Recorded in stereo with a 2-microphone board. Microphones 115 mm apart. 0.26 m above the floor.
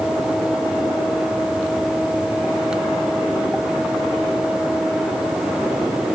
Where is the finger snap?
No finger snap in this recording.